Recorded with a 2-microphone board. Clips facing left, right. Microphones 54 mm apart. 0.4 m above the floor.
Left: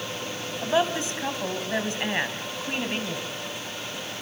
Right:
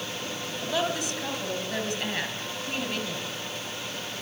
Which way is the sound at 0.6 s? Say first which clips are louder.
Left 5 dB; 25° left (ahead or behind).